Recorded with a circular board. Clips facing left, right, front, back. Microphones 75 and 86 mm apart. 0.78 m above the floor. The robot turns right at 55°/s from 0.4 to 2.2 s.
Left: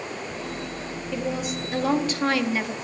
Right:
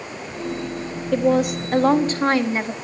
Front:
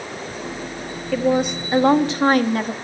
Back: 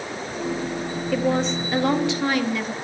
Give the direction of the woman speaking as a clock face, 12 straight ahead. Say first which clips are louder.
Right 11 dB, front 3 dB; 3 o'clock.